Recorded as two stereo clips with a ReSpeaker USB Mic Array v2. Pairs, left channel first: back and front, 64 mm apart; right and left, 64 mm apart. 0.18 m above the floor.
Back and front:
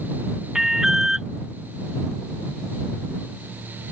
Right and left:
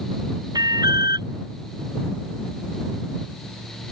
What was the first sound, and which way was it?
An alarm, 85° left.